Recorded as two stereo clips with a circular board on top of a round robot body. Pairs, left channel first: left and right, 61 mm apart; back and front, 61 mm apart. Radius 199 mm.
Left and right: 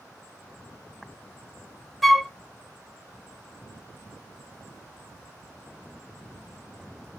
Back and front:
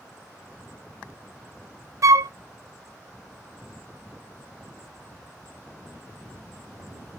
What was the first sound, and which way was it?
A flute, 5° left.